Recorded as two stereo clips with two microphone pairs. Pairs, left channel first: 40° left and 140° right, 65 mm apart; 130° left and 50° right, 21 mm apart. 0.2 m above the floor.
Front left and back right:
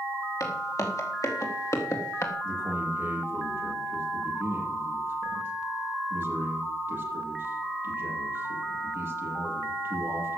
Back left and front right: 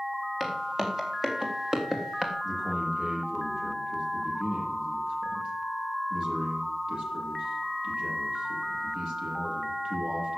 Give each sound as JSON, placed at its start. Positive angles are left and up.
{"t": 0.4, "sound": "footsteps", "azimuth_deg": 15, "distance_m": 4.5}
{"t": 2.4, "sound": "a man speaking", "azimuth_deg": -85, "distance_m": 7.5}